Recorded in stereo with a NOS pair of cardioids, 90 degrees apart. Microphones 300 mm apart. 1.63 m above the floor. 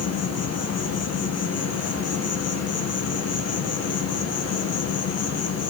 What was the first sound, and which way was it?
An insect, 55° left.